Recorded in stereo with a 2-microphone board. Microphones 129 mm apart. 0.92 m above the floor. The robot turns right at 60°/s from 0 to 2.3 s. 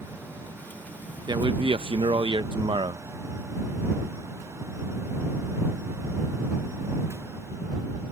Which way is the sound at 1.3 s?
130° right.